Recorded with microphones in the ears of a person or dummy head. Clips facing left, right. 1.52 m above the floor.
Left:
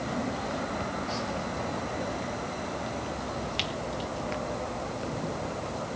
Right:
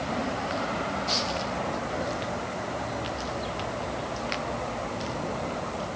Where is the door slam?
I don't hear a door slam.